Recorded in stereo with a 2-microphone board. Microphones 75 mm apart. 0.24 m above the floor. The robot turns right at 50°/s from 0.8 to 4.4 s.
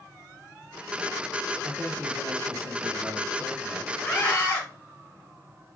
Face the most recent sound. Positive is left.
turn(degrees=35)  # may be behind; listen again after turning